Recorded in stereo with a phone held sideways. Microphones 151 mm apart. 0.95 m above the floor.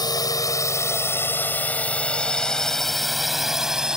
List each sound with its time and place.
0.0 s a drone: 25° left (ahead or behind); by 4.0 s 5° right (ahead or behind)